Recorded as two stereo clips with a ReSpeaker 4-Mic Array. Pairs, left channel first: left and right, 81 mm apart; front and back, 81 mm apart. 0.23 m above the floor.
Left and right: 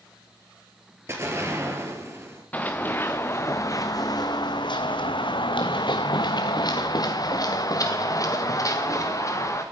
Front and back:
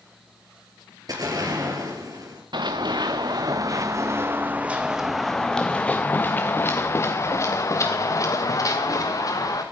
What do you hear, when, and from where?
1.1 s an explosion: 145° right, 3.5 m
2.5 s running footsteps: 160° left, 1.6 m; by 9.6 s 40° left, 3 m